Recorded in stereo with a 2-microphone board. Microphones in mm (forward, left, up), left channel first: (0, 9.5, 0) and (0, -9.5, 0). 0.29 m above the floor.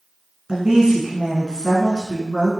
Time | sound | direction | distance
0.5 | a woman speaking | 40° right (ahead or behind) | 2.5 m